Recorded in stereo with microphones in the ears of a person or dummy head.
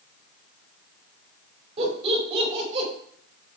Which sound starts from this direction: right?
Laughter, at 1.8 s.